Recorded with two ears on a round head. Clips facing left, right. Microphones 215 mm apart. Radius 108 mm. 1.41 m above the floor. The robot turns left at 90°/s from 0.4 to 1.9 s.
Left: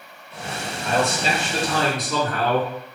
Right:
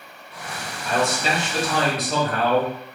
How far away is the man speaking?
About 1.7 m.